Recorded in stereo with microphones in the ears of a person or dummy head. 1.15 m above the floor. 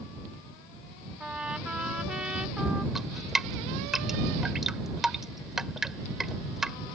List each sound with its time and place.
1.2 s a trumpet: 5° right (ahead or behind)
3.0 s dripping: 5° right (ahead or behind)